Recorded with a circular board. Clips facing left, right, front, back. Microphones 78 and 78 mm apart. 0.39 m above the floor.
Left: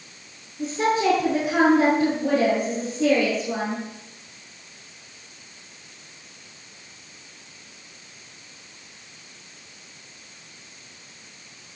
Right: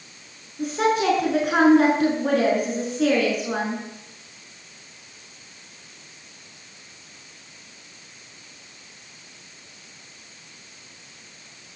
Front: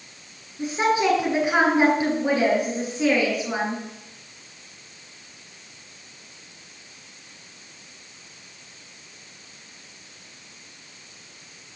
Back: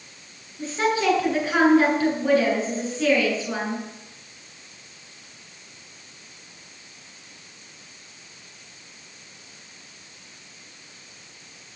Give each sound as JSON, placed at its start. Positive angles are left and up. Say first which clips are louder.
{"t": 0.6, "sound": "a woman speaking", "louder": "right 1 dB, front 2 dB", "azimuth_deg": -70, "distance_m": 5.5}